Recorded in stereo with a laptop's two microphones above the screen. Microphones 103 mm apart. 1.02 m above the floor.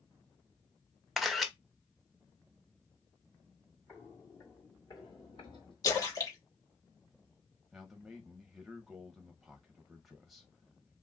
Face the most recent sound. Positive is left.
turn(degrees=0)  # may be behind; listen again after turning